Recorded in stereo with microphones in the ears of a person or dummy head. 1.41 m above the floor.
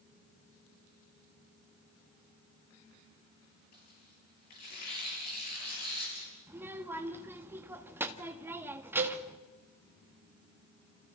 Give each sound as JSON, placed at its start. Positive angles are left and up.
{"t": 3.7, "sound": "tearing paper", "side_deg": 60, "distance_m": 7.0}
{"t": 6.5, "sound": "a child speaking", "side_deg": -15, "distance_m": 1.4}
{"t": 9.0, "sound": "a cowbell", "side_deg": -65, "distance_m": 3.0}